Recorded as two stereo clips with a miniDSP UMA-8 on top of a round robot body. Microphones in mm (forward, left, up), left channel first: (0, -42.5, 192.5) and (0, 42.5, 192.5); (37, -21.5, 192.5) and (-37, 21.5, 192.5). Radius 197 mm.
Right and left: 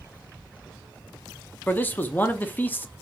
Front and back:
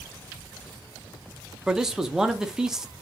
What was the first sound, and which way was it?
A man speaking, 135° right.